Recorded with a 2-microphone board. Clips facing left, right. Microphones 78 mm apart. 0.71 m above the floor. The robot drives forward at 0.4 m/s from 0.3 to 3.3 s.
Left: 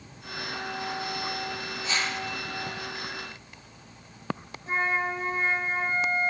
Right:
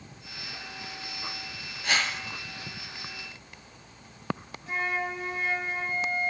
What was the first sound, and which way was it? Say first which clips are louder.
A whoosh: right 2 dB; 65° right (ahead or behind).